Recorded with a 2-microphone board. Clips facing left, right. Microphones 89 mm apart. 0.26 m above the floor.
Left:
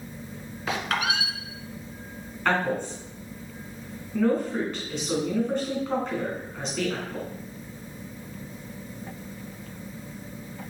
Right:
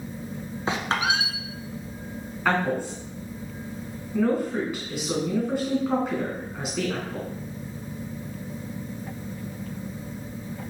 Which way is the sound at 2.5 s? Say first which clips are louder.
Right 1 dB; 10° right (ahead or behind).